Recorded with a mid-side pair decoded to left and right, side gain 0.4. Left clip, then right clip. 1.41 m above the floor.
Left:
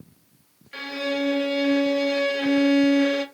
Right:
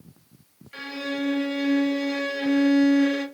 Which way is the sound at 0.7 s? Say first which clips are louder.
Left 4 dB; 40° left.